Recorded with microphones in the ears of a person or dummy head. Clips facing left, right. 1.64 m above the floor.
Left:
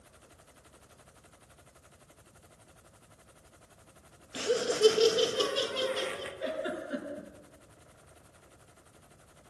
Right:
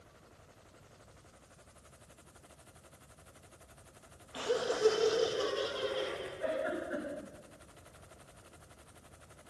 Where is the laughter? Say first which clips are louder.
Left 4 dB; 20° left (ahead or behind), 2 m; by 6.3 s 60° left (ahead or behind), 3 m.